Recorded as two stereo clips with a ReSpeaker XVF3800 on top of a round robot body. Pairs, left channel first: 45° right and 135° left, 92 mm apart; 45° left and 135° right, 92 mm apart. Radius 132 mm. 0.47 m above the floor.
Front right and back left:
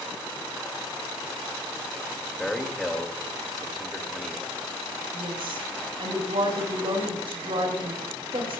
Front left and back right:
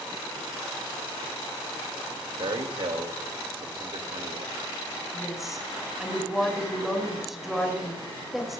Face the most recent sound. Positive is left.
turn(degrees=140)